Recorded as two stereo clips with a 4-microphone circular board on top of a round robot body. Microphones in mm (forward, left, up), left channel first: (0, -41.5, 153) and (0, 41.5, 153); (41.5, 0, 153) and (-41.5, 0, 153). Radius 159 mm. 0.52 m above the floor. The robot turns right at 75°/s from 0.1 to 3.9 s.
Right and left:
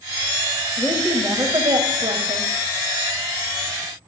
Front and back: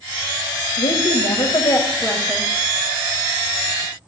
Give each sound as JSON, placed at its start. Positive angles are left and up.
{"t": 0.8, "sound": "a woman speaking", "azimuth_deg": -20, "distance_m": 4.0}